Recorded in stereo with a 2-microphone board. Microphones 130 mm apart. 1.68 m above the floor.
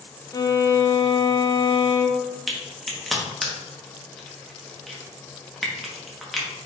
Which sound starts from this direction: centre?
A crack, at 2.5 s.